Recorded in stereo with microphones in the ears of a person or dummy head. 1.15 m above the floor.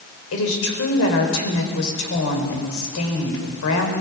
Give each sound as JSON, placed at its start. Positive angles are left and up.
{"t": 0.3, "sound": "a woman speaking", "side_deg": 75, "distance_m": 4.5}